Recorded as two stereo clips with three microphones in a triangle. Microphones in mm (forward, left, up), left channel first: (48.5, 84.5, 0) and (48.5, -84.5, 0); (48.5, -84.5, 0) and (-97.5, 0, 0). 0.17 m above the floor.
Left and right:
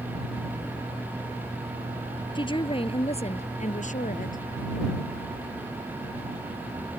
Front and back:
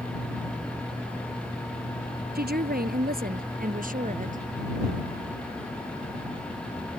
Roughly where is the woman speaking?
Behind left.